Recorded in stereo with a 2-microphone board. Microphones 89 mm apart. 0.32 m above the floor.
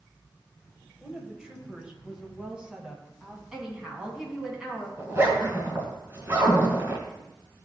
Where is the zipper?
30° right (ahead or behind), 2 m.